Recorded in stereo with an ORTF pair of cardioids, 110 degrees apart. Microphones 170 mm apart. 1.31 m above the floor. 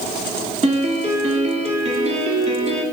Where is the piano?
40° right, 3 m.